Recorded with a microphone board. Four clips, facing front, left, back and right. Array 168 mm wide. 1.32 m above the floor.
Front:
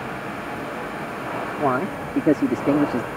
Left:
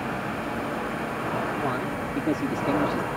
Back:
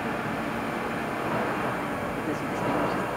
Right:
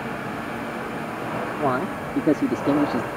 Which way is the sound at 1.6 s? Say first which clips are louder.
Right 4 dB, front 7 dB; 30° right.